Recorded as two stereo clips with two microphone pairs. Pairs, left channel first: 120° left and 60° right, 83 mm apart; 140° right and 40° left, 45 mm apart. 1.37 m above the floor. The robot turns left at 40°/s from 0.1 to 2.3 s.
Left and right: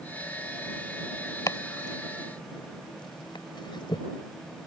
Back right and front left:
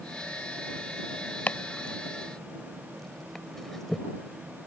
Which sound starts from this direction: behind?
Chopping, at 1.5 s.